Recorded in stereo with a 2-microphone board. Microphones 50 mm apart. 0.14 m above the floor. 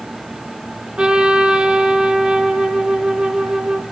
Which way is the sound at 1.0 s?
20° right (ahead or behind).